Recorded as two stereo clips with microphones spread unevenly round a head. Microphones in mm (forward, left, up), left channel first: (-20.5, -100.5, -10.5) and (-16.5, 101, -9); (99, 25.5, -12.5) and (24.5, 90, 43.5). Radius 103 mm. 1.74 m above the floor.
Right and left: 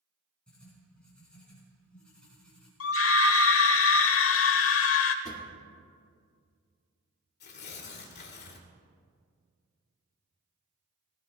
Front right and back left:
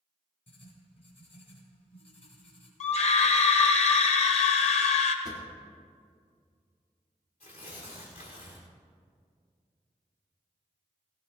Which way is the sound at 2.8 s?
65° right.